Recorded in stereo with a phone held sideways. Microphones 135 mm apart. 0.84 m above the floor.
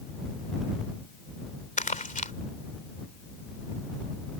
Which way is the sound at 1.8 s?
75° left (ahead or behind).